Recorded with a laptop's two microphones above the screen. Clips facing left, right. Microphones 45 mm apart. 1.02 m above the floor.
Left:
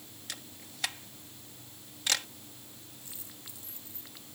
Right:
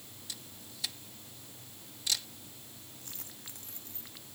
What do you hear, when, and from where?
0.3 s a camera shutter: 60° left (ahead or behind)
3.0 s a dropped coin: 55° right (ahead or behind)